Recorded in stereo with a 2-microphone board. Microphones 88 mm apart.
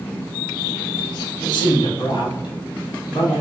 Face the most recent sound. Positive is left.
turn(degrees=65)  # may be behind; listen again after turning